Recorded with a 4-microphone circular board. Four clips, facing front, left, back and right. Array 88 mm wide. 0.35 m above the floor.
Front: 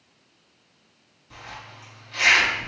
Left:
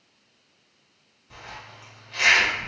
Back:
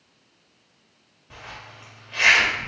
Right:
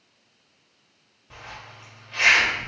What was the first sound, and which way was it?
A zipper, 145° right.